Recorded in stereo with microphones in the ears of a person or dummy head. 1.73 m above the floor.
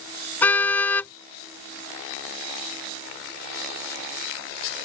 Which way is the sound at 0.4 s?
15° left (ahead or behind).